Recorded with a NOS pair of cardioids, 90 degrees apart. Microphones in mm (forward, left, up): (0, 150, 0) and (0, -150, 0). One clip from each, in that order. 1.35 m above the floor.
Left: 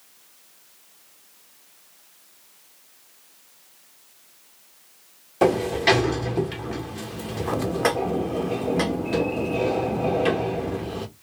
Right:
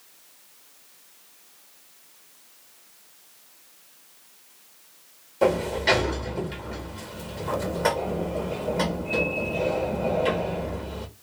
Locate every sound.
5.4 s a sliding door: 50° left, 1.2 m